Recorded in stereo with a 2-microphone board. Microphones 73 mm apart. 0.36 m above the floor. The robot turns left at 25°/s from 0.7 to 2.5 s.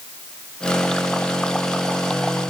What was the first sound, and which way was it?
Only background noise.